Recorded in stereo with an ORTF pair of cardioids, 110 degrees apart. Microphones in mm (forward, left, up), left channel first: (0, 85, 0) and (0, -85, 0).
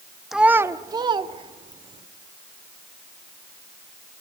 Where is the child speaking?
Straight ahead, 1.0 m; by 2.0 s 40° right, 2.5 m.